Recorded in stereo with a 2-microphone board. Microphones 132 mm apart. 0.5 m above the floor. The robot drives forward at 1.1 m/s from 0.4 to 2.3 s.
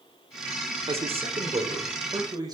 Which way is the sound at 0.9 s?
50° right (ahead or behind).